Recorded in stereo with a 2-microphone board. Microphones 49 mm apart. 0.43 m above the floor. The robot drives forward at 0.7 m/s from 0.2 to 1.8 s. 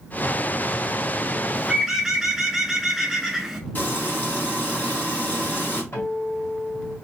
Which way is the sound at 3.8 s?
40° left (ahead or behind).